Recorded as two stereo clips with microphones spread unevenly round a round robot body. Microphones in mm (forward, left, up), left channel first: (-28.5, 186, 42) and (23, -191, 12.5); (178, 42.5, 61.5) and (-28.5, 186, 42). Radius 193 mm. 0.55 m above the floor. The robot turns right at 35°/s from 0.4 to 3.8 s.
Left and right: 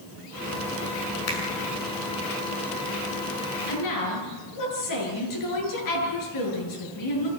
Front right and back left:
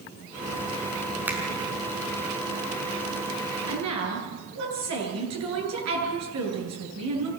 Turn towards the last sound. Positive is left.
turn(degrees=140)